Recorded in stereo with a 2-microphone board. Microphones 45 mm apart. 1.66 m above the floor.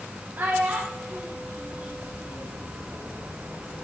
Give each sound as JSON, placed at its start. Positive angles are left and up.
{"t": 0.4, "sound": "a child speaking", "side_deg": -40, "distance_m": 1.0}